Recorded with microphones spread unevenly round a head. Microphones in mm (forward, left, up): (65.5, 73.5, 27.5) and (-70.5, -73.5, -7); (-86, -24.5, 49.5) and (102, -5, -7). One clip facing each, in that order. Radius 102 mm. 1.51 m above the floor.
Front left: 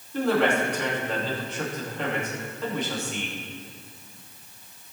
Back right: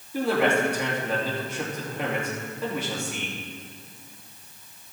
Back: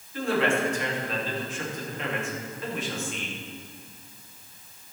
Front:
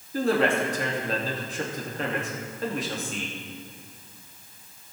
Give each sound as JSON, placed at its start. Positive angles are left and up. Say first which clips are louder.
{"t": 0.1, "sound": "a man speaking", "louder": "even, front 2 dB", "azimuth_deg": -50, "distance_m": 2.5}